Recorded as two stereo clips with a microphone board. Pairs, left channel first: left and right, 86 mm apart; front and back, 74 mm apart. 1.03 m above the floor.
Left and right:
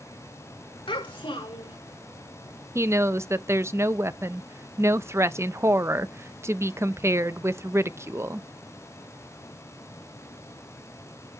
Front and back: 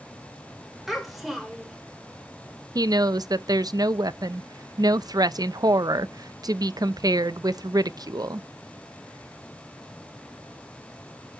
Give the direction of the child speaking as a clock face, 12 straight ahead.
9 o'clock.